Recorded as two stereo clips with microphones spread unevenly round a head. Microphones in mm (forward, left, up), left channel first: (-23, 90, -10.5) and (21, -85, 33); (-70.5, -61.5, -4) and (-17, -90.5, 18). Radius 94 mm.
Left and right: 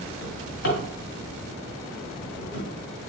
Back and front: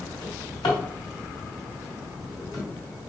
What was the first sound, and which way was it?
A drawer, 140° left.